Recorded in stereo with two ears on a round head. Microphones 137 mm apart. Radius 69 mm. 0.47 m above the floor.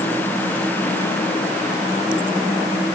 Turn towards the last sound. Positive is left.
No sound to turn to.